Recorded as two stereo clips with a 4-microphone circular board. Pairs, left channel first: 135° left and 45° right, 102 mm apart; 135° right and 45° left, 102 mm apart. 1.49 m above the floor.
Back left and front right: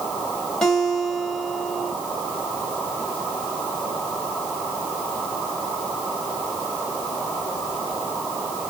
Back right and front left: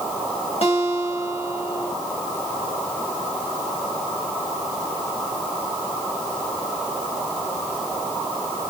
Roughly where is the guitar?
Behind right.